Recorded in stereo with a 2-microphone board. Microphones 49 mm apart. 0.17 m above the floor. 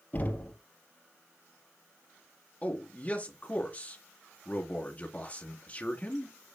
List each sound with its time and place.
0.1 s knocking: 35° left (ahead or behind), 3 m
2.6 s a man speaking: 30° left (ahead or behind), 2.5 m